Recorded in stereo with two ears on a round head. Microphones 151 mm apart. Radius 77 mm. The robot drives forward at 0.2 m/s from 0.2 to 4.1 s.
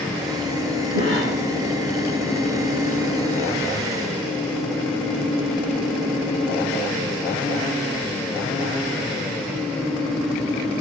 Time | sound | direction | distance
0.9 | a cough | 60° right (ahead or behind) | 6.5 m